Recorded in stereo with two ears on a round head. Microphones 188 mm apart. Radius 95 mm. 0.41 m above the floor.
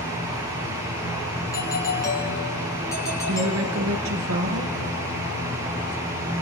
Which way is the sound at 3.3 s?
75° right (ahead or behind).